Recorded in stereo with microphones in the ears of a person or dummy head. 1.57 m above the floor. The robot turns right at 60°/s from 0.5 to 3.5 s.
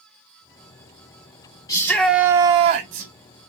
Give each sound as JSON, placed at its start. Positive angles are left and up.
{"t": 1.7, "sound": "a shout", "azimuth_deg": 165, "distance_m": 1.3}